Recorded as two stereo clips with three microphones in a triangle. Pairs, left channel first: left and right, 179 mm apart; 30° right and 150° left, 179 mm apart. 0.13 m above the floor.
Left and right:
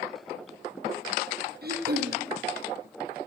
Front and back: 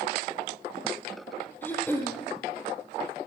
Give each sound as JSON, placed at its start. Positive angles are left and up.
{"t": 1.6, "sound": "throat clearing", "azimuth_deg": -110, "distance_m": 3.0}